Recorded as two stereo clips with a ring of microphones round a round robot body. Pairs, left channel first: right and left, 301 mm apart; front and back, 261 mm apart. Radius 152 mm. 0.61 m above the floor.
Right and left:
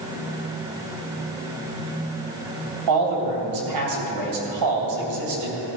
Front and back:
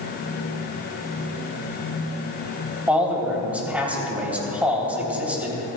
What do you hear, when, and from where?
2.9 s a man speaking: 95° left, 3 m